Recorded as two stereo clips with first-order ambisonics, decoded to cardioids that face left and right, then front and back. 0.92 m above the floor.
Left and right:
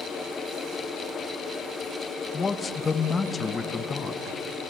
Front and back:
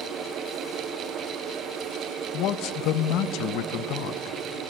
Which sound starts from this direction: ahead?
A man speaking, at 2.3 s.